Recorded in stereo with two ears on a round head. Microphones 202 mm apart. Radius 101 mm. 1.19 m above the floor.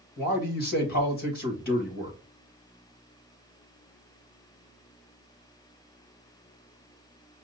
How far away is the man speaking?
About 1.6 m.